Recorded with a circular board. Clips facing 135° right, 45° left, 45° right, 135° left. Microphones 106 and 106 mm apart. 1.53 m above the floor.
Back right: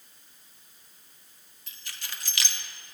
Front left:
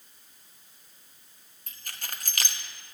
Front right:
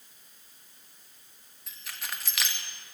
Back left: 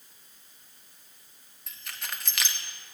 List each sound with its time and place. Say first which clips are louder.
1.7 s keys jangling: front left 2 dB, even; 45° left, 1.1 m